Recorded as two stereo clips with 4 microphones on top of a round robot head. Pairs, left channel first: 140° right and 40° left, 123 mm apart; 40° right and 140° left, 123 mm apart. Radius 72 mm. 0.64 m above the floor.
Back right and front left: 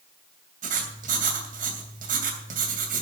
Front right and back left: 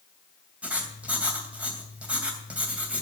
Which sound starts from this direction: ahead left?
Writing, at 0.6 s.